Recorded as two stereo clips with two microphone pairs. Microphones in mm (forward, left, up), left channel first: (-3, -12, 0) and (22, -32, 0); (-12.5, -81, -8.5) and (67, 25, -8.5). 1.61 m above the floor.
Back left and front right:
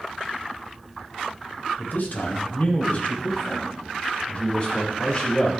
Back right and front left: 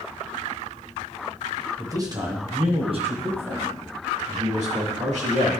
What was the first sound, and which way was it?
A man speaking, 120° left.